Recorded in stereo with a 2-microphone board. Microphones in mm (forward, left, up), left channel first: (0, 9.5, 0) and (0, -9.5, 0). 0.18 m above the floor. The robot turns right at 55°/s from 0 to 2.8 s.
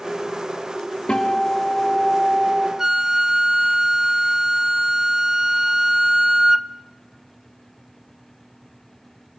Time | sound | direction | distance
1.1 | a guitar | 115° left | 4 m
2.8 | a flute | 30° right (ahead or behind) | 0.7 m